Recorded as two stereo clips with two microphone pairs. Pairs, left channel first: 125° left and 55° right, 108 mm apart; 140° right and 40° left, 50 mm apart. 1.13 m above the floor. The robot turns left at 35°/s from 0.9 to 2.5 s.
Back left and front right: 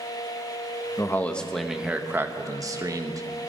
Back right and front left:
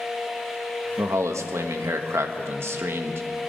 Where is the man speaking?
60° left, 1.1 m; by 3.2 s 5° left, 1.1 m.